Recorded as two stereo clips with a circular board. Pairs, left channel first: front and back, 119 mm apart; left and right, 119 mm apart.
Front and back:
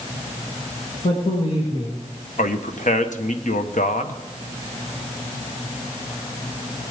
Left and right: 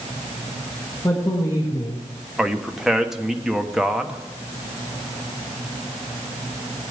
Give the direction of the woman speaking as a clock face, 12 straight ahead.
11 o'clock.